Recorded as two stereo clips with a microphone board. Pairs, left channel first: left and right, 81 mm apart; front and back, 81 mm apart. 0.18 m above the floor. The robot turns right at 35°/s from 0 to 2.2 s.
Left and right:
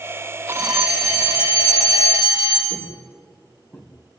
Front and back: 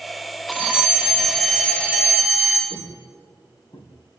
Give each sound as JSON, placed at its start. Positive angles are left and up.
{"t": 0.5, "sound": "a fire alarm", "azimuth_deg": -120, "distance_m": 5.0}
{"t": 2.7, "sound": "footsteps", "azimuth_deg": 15, "distance_m": 4.0}